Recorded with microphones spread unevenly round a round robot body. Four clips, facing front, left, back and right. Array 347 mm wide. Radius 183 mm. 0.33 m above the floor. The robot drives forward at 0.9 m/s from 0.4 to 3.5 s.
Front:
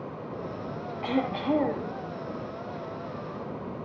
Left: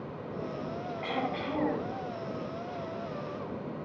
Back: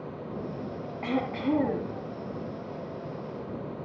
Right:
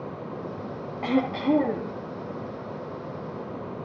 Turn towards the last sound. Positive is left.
turn(degrees=-145)